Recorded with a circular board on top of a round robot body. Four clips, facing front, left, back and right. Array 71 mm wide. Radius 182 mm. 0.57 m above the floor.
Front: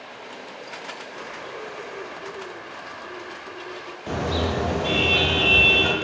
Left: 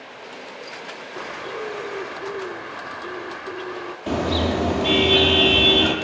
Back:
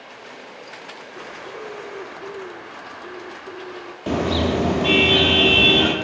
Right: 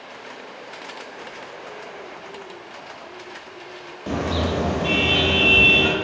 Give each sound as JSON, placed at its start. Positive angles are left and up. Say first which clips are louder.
{"t": 1.2, "sound": "a bird", "louder": "left 6 dB, back 3 dB", "azimuth_deg": 100, "distance_m": 0.6}
{"t": 4.1, "sound": "a car horn", "louder": "left 2 dB, back 5 dB", "azimuth_deg": 180, "distance_m": 7.0}